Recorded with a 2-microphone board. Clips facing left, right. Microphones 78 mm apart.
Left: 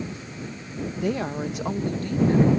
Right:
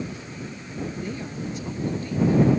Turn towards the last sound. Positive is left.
turn(degrees=55)  # may be behind; listen again after turning